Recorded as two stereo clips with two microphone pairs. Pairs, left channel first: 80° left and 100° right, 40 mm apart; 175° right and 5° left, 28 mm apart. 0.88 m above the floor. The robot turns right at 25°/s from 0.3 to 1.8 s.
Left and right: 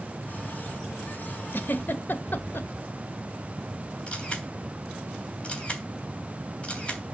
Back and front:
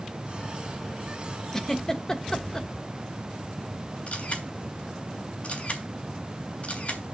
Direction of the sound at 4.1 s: 145° left.